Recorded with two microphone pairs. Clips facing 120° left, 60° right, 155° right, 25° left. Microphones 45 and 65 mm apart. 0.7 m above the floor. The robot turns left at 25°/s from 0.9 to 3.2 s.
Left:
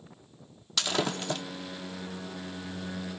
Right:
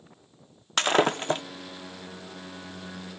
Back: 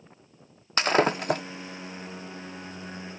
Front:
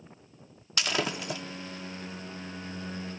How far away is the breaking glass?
About 0.7 m.